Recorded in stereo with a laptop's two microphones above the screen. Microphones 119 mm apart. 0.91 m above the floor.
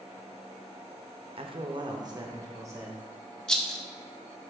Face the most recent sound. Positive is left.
turn(degrees=5)  # may be behind; listen again after turning